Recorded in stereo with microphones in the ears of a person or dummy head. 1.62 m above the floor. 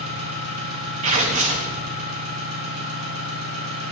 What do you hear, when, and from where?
0.0 s an engine running: 70° right (ahead or behind), 2.5 m
1.0 s tearing paper: 40° right (ahead or behind), 0.8 m